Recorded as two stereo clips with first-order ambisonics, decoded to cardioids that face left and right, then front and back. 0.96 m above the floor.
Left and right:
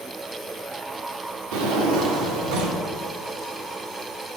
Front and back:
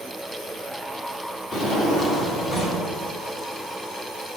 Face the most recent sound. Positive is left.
turn(degrees=-70)